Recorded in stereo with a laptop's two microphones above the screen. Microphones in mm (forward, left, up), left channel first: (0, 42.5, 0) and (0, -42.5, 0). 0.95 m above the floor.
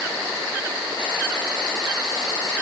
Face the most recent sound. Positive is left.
No sound to turn to.